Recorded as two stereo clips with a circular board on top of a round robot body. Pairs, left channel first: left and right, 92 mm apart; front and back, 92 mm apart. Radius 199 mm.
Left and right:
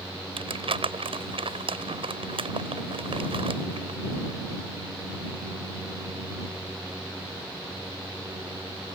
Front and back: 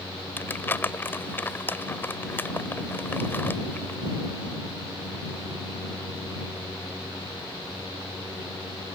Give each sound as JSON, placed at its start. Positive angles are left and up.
{"t": 0.4, "sound": "crumpling", "azimuth_deg": -70}